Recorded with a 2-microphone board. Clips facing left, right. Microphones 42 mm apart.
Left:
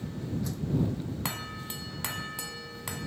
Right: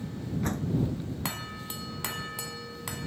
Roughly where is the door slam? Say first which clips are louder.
Right 2 dB; right.